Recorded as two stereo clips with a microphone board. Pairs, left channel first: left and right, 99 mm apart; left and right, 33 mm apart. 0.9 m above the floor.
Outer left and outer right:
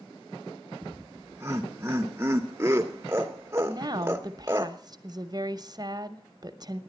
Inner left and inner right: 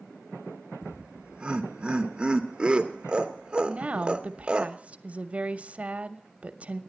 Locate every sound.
0.8 s laughter: 25° right (ahead or behind), 0.6 m
3.7 s a woman speaking: 40° right (ahead or behind), 0.8 m